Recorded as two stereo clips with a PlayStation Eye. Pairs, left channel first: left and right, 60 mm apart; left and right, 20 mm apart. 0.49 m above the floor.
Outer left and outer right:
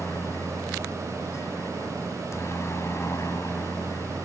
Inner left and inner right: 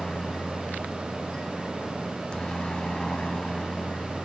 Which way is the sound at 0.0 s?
50° left (ahead or behind).